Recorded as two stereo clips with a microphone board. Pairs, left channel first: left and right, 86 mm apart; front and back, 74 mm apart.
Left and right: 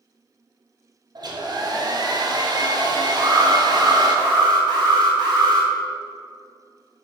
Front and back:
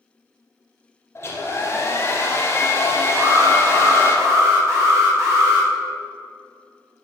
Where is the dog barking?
No dog barking in this recording.